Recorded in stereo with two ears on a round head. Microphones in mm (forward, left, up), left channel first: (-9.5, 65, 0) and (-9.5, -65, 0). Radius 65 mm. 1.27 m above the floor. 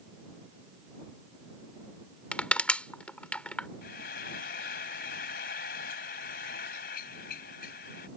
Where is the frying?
75° left (ahead or behind).